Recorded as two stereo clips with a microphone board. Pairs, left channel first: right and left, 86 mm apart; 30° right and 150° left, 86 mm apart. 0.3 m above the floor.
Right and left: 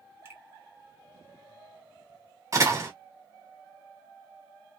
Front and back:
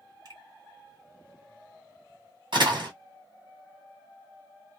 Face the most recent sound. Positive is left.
turn(degrees=140)